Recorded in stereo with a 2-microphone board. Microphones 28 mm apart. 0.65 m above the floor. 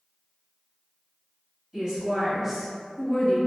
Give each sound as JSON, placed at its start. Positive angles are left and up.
{"t": 1.7, "sound": "a woman speaking", "side_deg": -20, "distance_m": 1.1}